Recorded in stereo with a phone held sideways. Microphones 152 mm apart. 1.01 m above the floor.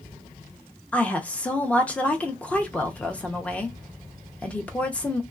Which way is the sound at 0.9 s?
10° left (ahead or behind).